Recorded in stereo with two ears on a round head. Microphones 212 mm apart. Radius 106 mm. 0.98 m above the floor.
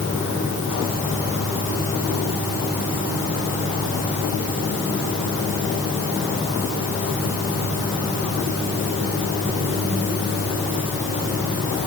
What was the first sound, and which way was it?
Only background noise.